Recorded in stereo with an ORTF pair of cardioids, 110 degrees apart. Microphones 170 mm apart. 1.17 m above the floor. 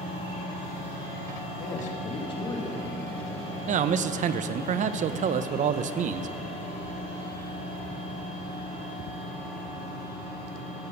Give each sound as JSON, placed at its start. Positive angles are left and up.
{"t": 1.6, "sound": "a man speaking", "azimuth_deg": 55, "distance_m": 2.0}
{"t": 3.7, "sound": "a man speaking", "azimuth_deg": -50, "distance_m": 0.6}